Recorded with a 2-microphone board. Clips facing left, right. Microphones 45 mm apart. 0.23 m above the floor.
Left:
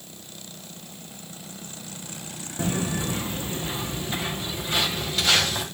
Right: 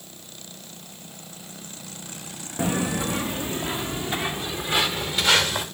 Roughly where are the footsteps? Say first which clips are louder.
Right 2 dB; right.